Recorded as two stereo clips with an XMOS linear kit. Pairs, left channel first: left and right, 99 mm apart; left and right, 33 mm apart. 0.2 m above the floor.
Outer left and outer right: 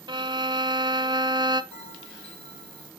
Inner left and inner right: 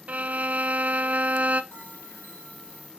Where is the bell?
75° left (ahead or behind), 5.5 m.